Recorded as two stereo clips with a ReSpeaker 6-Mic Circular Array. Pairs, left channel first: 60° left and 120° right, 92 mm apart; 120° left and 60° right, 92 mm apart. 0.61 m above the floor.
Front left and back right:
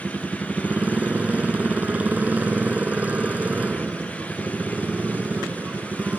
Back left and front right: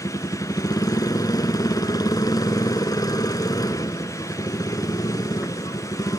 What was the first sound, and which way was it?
A motorcycle, 165° left.